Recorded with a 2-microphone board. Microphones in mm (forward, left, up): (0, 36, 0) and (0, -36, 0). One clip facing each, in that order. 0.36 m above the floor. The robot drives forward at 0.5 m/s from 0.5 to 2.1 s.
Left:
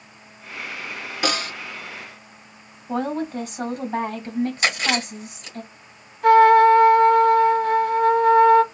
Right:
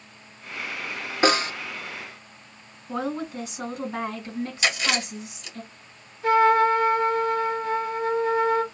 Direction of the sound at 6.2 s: 75° left (ahead or behind).